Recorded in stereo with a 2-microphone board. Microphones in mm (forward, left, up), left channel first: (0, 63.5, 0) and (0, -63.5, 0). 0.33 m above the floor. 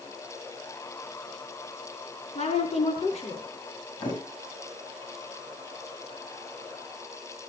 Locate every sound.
2.4 s a woman speaking: 50° left (ahead or behind), 4 m
4.0 s a thud: 35° left (ahead or behind), 4.5 m